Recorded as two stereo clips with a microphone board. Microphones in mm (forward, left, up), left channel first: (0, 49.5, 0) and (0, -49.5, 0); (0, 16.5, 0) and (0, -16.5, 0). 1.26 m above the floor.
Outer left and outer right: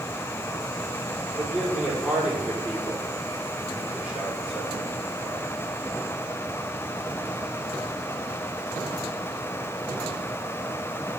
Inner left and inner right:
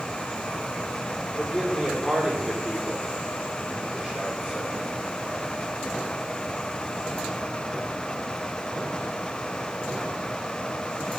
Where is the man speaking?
5° right (ahead or behind), 4.5 m.